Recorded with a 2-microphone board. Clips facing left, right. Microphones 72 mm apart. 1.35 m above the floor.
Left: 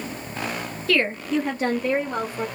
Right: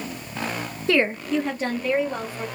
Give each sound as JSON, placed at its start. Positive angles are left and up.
{"t": 0.9, "sound": "a woman speaking", "side_deg": -25, "distance_m": 0.5}